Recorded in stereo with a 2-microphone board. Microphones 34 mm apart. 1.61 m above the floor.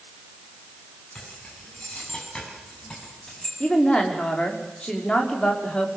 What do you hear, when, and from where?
1.1 s keys jangling: 30° left (ahead or behind), 9.5 m; by 3.5 s 20° left (ahead or behind), 7.5 m
3.6 s a woman speaking: 25° left (ahead or behind), 5 m